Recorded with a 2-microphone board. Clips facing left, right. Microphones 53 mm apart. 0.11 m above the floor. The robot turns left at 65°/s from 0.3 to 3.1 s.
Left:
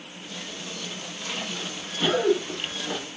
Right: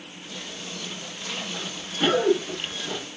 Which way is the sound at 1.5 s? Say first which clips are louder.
Right 2 dB; 75° right (ahead or behind).